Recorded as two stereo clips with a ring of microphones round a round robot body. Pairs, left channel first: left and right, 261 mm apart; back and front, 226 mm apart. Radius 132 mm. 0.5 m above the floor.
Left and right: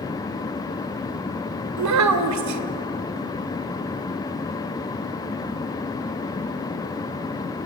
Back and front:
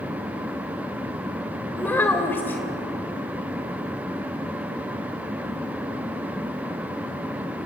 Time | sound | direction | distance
1.8 | a child speaking | 100° right | 1.5 m